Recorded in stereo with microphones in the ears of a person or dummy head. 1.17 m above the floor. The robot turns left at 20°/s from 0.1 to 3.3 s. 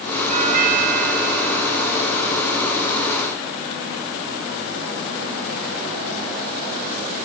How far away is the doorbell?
About 4 m.